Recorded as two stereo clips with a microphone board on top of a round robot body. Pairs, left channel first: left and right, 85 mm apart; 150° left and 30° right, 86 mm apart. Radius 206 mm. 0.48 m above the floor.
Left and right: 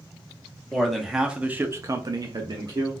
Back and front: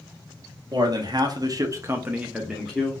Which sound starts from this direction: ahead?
A man speaking, at 0.7 s.